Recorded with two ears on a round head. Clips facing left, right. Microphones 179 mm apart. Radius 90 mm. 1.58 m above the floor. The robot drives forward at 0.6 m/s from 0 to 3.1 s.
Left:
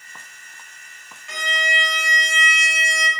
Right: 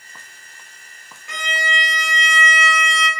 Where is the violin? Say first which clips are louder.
Right 1 dB; 50° right (ahead or behind), 3 m; by 3.1 s 70° right (ahead or behind), 2.5 m.